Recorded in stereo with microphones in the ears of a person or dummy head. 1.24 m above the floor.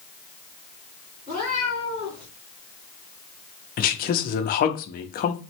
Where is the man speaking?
45° left (ahead or behind), 0.7 m.